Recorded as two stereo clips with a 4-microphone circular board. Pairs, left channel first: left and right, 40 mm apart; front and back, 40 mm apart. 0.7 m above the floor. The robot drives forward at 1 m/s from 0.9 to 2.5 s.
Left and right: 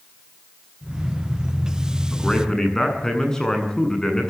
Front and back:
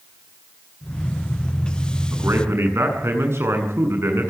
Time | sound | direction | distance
2.1 | a man speaking | 165° left | 8 m